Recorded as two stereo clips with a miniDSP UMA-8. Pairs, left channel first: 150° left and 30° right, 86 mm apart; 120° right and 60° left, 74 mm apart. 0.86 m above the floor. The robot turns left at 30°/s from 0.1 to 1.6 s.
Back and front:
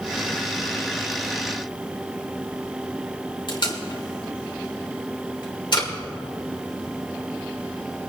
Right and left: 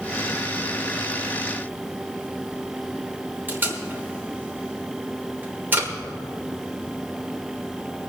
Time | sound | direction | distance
3.5 | tape being pulled | 125° left | 3 m